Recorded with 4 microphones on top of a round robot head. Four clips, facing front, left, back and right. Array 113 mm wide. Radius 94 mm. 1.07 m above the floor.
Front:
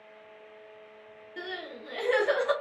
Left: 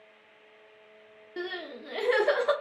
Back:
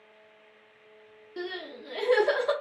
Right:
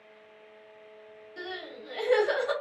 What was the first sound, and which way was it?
Crying, 110° left.